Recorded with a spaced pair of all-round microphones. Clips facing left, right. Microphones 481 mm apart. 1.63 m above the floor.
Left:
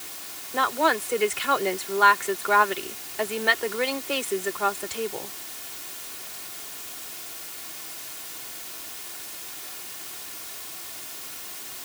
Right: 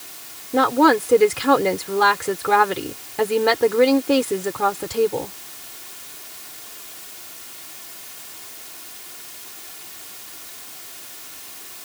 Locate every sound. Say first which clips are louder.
0.5 s a woman speaking: right 11 dB; 80° right